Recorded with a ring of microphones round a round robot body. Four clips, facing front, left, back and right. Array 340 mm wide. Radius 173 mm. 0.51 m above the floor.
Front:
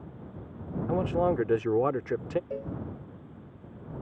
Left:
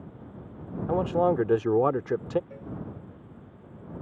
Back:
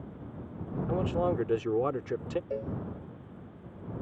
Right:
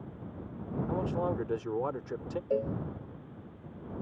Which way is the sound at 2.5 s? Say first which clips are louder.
Right 10 dB, back 1 dB; 95° right.